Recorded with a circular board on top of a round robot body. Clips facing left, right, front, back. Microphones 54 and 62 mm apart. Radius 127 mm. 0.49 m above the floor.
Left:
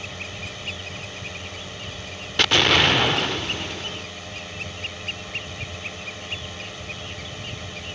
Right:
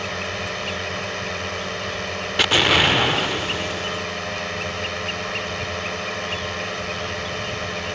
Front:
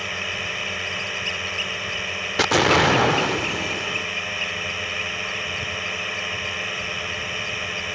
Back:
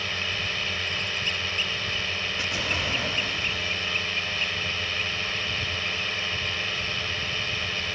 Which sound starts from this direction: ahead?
An explosion, at 2.4 s.